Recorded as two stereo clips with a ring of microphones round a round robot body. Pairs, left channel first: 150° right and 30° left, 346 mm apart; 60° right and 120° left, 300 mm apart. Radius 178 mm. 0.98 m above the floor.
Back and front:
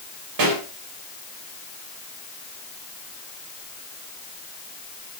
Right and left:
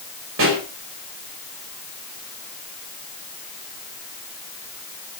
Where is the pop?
65° left, 4 m.